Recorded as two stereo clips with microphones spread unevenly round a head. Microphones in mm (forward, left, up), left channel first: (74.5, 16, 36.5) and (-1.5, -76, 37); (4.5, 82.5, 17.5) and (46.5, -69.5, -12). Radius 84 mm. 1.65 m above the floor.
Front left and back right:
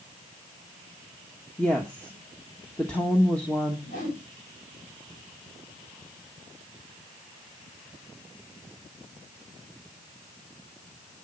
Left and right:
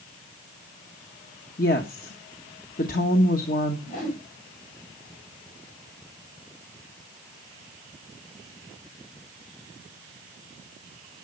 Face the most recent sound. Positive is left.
turn(degrees=70)